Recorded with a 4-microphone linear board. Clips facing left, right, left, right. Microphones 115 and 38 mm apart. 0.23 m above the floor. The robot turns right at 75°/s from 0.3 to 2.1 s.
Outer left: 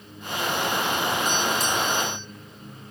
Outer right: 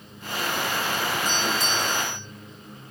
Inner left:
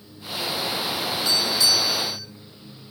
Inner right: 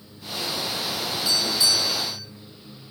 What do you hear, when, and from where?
1.2 s a doorbell: 20° right (ahead or behind), 1.5 m; by 2.3 s 15° right (ahead or behind), 1.5 m